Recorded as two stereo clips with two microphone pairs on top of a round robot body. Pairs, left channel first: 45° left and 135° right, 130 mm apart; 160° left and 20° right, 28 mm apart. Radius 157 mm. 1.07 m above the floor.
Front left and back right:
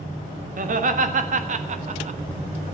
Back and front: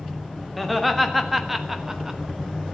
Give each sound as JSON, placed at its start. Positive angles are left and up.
{"t": 0.6, "sound": "laughter", "azimuth_deg": -115, "distance_m": 2.0}